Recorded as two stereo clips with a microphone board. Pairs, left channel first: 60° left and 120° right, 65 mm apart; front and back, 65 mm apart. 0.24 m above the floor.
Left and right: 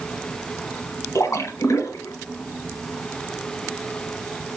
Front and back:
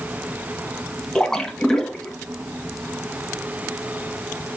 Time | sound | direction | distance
1.1 | a splash | 80° left | 1.2 m